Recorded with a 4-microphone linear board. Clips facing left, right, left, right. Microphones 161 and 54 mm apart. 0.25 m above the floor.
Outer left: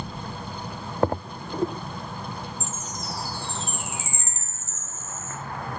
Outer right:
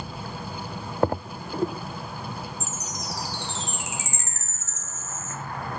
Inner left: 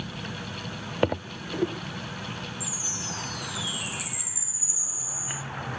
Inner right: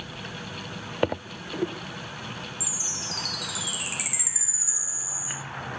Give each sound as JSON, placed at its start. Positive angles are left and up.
{"t": 2.6, "sound": "a chime", "side_deg": -75, "distance_m": 1.4}